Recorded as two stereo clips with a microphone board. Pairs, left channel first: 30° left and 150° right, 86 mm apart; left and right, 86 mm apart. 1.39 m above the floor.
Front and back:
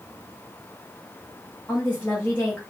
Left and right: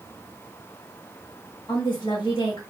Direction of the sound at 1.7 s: 95° left.